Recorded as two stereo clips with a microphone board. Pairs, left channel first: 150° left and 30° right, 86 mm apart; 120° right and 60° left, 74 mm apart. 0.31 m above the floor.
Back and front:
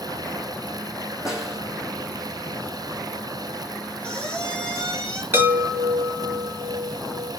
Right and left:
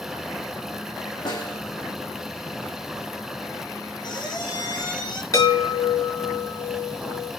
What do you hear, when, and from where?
1.2 s a snare drum: 115° right, 4 m
4.0 s a squeak: 125° right, 5.5 m
5.3 s a chime: 90° right, 3 m